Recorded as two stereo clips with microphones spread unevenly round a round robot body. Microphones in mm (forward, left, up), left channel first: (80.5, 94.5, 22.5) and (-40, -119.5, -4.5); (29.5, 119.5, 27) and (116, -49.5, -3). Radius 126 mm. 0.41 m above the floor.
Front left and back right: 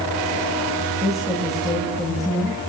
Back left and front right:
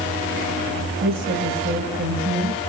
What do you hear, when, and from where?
1.0 s a woman speaking: 30° right, 8 m